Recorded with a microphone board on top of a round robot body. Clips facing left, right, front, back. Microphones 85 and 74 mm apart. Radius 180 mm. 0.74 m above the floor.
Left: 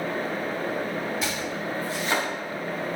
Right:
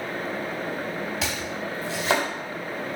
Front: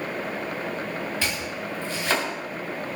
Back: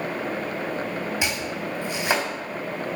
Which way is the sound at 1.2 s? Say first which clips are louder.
Left 1 dB, back 2 dB; 105° right.